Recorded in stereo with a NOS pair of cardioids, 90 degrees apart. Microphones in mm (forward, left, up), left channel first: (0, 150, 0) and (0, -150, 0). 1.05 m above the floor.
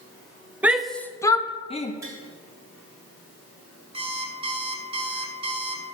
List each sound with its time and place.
0.6 s a shout: 5° right, 1.0 m; by 1.9 s 25° left, 1.4 m
2.0 s tapping: 10° right, 4.5 m
3.9 s an alarm clock: 20° right, 1.6 m